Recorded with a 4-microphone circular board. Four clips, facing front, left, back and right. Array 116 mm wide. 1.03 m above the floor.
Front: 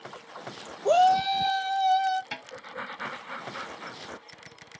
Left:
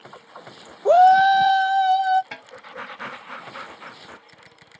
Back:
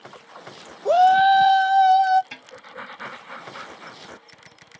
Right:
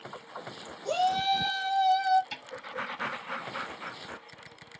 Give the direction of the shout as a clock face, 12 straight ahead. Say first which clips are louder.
Left 14 dB, back 6 dB; 9 o'clock.